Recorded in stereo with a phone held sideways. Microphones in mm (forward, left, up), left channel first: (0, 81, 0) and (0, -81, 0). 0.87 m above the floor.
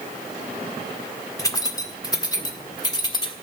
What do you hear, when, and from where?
1.4 s keys jangling: 20° left (ahead or behind), 1.5 m; by 3.3 s 25° left (ahead or behind), 2.5 m